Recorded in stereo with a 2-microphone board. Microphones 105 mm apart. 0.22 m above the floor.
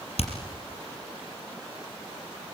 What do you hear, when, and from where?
0.2 s hammering: 75° left (ahead or behind), 4 m